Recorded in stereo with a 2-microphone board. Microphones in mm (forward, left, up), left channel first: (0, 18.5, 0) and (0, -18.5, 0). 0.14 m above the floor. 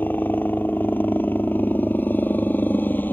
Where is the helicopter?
60° left (ahead or behind).